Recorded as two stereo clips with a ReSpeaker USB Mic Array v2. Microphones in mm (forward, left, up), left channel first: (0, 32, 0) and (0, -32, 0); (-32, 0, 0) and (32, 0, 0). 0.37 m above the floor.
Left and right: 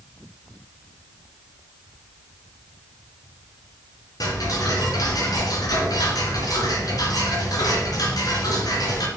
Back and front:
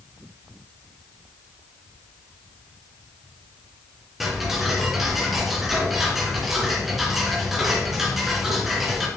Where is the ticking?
85° left, 3 m.